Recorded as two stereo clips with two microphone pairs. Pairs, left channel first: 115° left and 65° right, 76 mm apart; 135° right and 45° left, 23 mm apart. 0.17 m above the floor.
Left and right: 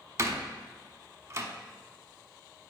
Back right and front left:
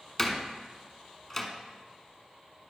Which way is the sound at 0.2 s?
60° right.